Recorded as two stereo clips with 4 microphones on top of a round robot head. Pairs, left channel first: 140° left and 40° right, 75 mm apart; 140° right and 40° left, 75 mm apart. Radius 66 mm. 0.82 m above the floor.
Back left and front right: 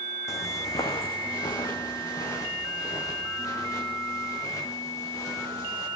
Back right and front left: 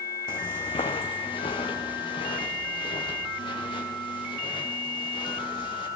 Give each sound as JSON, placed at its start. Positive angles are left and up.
{"t": 0.3, "sound": "footsteps", "azimuth_deg": -170, "distance_m": 2.5}